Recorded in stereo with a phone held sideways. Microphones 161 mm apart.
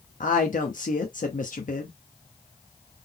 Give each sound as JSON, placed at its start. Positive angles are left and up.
{"t": 0.2, "sound": "a woman speaking", "side_deg": 55, "distance_m": 0.9}